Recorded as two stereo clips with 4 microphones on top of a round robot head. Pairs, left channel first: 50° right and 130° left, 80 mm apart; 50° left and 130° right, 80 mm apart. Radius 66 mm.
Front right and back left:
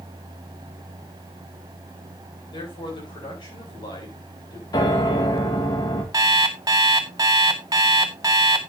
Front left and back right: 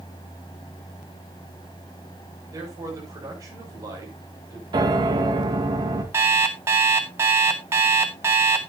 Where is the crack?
No crack in this recording.